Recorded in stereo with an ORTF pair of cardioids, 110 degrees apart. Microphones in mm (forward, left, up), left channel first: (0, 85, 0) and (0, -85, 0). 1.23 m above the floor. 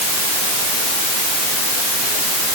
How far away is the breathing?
No breathing in this recording.